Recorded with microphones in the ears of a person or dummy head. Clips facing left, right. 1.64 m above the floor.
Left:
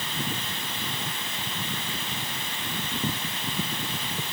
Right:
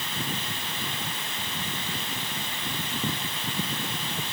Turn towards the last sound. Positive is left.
No sound to turn to.